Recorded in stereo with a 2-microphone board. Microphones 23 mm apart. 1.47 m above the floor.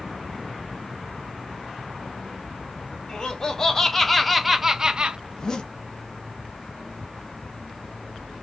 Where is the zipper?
35° left (ahead or behind), 0.7 m.